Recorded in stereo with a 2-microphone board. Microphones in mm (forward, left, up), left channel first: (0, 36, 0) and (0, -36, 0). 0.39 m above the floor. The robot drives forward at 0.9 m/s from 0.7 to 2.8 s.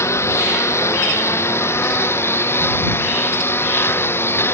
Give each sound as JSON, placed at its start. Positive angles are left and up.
{"t": 0.0, "sound": "a lawn mower", "side_deg": 40}